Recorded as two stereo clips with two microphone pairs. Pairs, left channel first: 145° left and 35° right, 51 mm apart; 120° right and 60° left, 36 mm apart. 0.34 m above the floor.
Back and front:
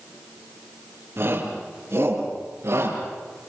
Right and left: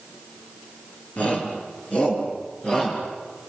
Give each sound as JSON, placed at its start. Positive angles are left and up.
{"t": 1.2, "sound": "a shout", "azimuth_deg": -65, "distance_m": 6.0}